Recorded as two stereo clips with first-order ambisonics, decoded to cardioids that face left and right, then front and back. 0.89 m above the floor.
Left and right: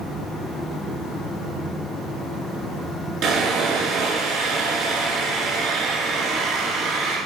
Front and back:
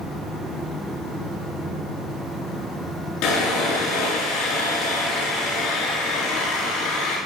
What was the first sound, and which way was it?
Sawing, 40° right.